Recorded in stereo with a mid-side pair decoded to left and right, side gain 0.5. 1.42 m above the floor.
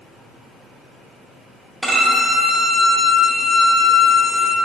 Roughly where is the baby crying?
I don't hear a baby crying.